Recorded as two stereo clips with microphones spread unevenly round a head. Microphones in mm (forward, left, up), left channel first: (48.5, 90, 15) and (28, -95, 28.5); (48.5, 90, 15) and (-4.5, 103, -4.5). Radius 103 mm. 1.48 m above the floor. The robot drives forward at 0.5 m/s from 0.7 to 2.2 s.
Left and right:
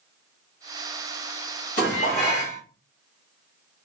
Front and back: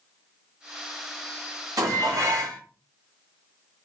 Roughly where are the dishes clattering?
Behind left.